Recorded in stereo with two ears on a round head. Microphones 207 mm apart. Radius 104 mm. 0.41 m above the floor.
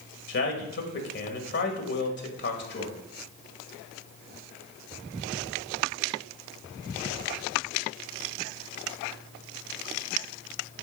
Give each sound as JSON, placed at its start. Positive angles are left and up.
{"t": 0.3, "sound": "a man speaking", "side_deg": 50, "distance_m": 1.9}